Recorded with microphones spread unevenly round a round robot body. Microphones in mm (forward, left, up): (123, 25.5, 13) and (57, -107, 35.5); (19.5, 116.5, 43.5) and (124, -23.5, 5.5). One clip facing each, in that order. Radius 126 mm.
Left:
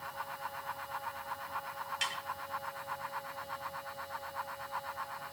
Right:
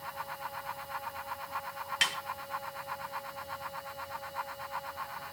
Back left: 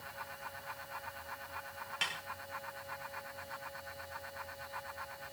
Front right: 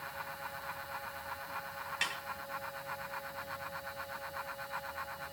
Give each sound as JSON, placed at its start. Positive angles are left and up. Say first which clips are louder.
{"t": 2.0, "sound": "a snare drum", "louder": "right 5 dB, front right 1 dB", "azimuth_deg": -125, "distance_m": 2.0}